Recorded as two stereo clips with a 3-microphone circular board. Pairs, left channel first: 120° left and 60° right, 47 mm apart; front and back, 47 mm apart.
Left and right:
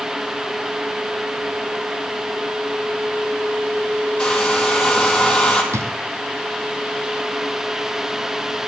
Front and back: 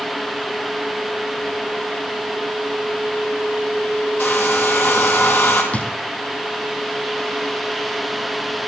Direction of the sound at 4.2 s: 45° left.